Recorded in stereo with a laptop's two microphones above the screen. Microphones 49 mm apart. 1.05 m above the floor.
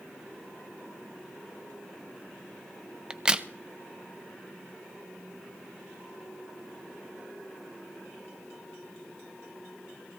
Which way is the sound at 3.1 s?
20° right (ahead or behind).